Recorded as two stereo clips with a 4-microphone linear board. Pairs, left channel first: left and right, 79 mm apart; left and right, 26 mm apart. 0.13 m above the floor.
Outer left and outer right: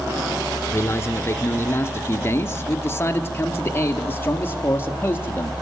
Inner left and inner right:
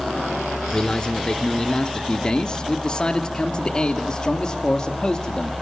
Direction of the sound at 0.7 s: 30° left (ahead or behind).